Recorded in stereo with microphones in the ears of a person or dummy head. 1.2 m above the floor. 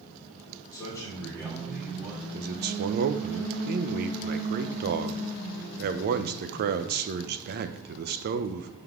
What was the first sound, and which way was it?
A man speaking, 20° left (ahead or behind).